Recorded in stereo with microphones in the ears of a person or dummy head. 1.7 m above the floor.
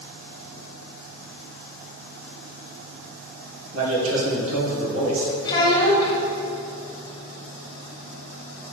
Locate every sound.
3.7 s a man speaking: 80° right, 1.8 m
5.5 s a child speaking: 25° left (ahead or behind), 1.4 m